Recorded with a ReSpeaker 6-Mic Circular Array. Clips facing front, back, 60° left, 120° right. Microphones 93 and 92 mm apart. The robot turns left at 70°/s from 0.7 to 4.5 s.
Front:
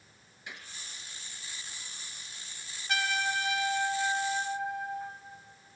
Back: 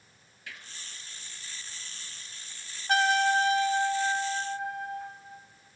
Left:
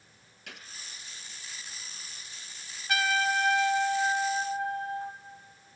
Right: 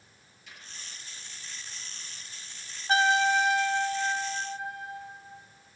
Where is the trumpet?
160° right, 2.5 m; by 5.1 s 85° left, 2.5 m.